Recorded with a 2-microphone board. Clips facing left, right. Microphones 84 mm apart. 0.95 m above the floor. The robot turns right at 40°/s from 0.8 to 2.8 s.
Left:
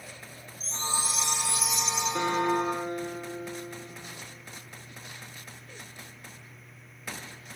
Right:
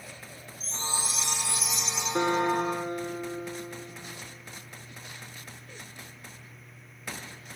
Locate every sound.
0.6 s a chime: 35° left, 4.5 m; by 2.0 s 85° left, 4.5 m
2.1 s a guitar: 45° right (ahead or behind), 3 m; by 3.9 s 20° right (ahead or behind), 3 m